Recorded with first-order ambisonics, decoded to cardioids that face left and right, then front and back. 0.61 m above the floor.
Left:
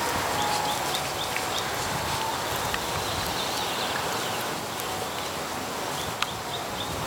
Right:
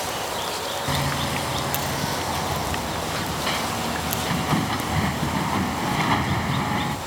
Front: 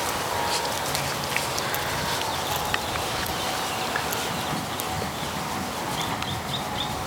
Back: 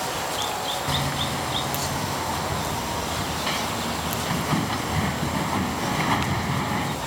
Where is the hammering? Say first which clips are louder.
Right 3 dB, back 1 dB; 120° right.